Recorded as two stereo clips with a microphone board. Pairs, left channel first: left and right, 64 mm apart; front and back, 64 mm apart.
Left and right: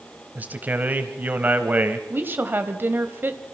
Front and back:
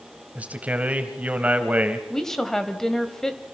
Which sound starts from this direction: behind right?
A man speaking, at 0.3 s.